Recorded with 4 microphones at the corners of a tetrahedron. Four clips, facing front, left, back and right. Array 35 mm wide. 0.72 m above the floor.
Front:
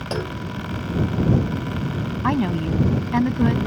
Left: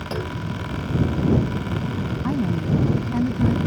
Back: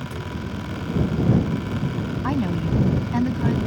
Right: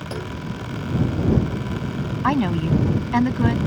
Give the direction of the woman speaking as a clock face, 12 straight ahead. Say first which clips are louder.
Right 5 dB, front 3 dB; 2 o'clock.